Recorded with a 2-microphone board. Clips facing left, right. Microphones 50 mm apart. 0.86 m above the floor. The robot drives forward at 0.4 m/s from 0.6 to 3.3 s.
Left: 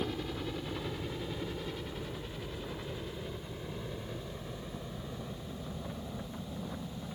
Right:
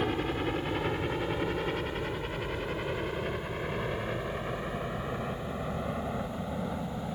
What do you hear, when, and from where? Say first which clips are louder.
0.0 s a helicopter: right 7 dB; 45° right (ahead or behind); by 7.2 s 70° right (ahead or behind)